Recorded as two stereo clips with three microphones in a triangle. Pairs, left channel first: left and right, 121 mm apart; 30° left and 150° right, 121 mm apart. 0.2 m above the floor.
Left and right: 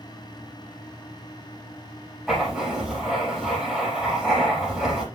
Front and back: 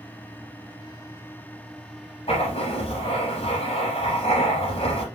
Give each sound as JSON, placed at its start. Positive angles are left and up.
{"t": 2.3, "sound": "writing", "azimuth_deg": 0, "distance_m": 6.0}